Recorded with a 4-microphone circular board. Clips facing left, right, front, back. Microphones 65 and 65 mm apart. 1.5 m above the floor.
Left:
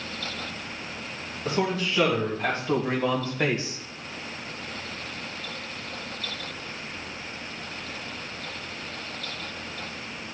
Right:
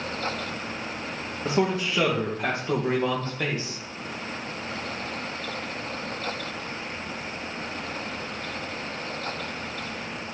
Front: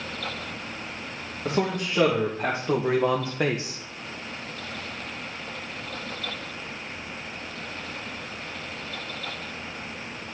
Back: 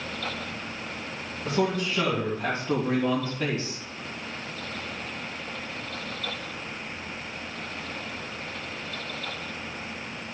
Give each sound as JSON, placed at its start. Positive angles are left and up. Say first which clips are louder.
{"t": 1.4, "sound": "a man speaking", "louder": "right 2 dB, even", "azimuth_deg": -35, "distance_m": 2.5}